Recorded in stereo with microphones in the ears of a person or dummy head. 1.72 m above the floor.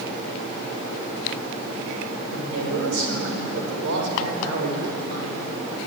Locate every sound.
2.3 s a man speaking: 65° right (ahead or behind), 7 m